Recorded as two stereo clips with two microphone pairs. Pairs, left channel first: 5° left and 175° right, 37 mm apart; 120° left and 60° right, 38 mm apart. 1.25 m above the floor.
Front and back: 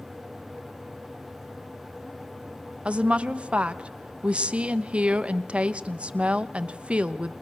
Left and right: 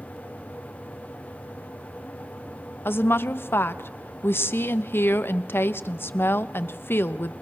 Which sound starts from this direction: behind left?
A woman speaking, at 2.9 s.